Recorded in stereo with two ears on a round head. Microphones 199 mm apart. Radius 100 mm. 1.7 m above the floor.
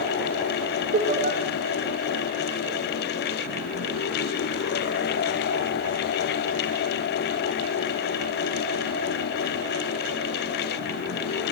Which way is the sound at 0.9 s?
40° right (ahead or behind).